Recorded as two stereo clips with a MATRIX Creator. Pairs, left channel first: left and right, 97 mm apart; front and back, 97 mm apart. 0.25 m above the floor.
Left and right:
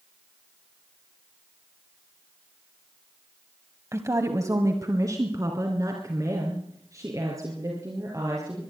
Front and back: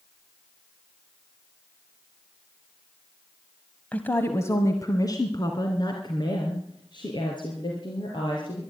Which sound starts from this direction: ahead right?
A woman speaking, at 3.9 s.